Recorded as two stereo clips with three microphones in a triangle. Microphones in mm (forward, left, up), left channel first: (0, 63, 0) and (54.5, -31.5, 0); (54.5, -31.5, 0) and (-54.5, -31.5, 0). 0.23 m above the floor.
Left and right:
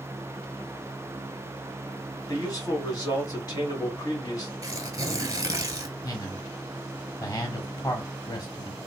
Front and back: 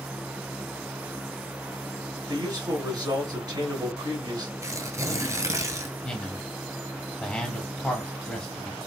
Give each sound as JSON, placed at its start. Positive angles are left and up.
{"t": 2.3, "sound": "a man speaking", "azimuth_deg": 155, "distance_m": 1.8}
{"t": 4.6, "sound": "tearing paper", "azimuth_deg": -115, "distance_m": 0.7}
{"t": 6.0, "sound": "a man speaking", "azimuth_deg": 80, "distance_m": 1.2}